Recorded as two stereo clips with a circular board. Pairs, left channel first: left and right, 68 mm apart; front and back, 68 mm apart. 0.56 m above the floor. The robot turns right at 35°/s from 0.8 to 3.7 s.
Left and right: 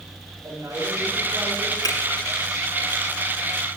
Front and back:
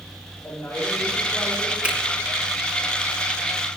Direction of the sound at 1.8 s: 105° left.